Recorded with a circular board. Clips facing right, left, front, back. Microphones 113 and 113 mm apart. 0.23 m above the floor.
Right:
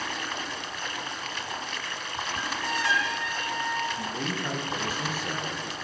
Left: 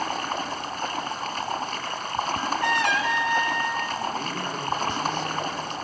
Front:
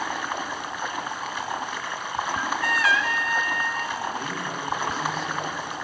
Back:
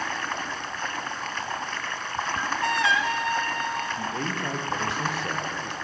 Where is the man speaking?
170° right, 7 m.